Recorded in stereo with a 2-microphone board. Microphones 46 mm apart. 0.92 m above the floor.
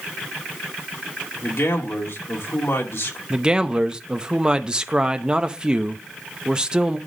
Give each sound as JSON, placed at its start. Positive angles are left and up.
{"t": 1.4, "sound": "a man speaking", "side_deg": 75, "distance_m": 2.0}
{"t": 3.3, "sound": "a man speaking", "side_deg": -20, "distance_m": 0.7}